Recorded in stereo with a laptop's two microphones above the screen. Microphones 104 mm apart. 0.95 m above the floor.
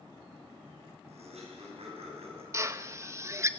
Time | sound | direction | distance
1.1 | laughter | 85° right | 7 m
2.5 | a drill | 25° right (ahead or behind) | 1.0 m